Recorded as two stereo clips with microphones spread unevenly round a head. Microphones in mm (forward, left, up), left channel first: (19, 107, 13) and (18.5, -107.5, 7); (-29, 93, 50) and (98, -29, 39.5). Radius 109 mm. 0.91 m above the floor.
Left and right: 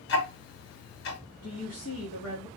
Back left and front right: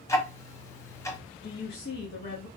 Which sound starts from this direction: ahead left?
Ticking, at 0.1 s.